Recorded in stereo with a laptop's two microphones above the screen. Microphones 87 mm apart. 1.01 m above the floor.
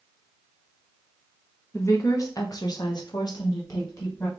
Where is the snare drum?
No snare drum in this recording.